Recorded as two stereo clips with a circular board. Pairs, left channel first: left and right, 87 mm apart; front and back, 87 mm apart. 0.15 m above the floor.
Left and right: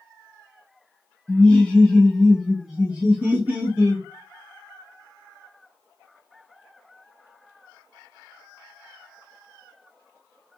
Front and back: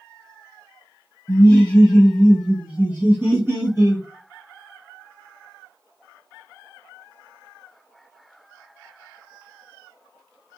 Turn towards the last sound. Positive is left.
turn(degrees=-145)